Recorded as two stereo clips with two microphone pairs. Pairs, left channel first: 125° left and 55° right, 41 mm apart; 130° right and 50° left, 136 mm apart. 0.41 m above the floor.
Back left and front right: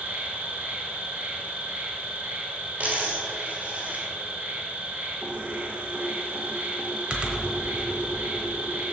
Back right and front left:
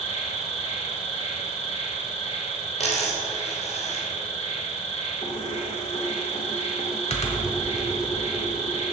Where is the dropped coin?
105° right, 2.5 m.